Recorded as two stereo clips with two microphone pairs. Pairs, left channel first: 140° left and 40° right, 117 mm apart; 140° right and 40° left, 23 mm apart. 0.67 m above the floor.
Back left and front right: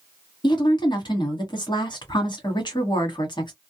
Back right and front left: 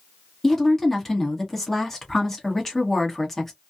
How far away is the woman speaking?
About 1.3 m.